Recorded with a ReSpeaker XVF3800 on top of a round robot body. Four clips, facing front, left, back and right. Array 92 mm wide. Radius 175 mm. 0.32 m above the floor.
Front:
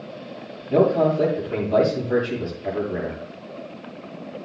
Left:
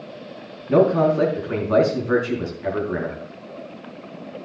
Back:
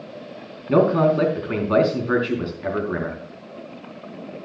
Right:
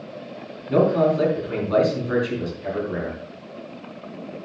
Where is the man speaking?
160° left, 4.5 m.